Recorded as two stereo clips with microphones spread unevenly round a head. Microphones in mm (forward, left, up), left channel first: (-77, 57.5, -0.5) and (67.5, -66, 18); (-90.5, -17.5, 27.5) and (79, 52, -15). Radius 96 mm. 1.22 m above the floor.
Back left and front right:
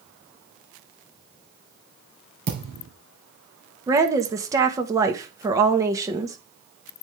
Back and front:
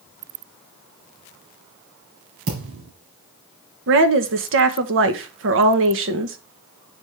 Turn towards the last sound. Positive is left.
turn(degrees=35)